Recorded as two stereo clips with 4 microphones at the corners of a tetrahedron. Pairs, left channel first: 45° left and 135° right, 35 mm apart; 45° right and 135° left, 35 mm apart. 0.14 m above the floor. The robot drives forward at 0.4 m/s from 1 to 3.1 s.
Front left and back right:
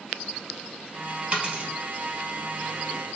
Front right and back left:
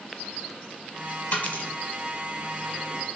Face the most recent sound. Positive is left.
turn(degrees=-100)